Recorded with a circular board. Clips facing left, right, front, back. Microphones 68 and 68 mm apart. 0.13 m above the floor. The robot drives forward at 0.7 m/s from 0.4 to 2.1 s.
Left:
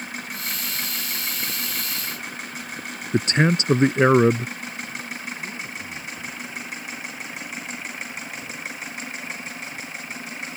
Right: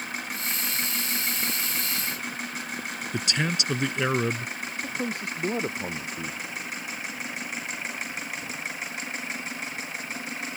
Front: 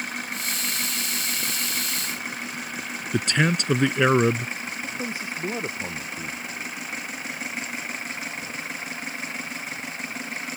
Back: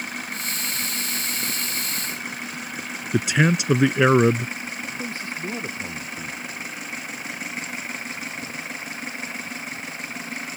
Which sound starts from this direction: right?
A man speaking, at 4.8 s.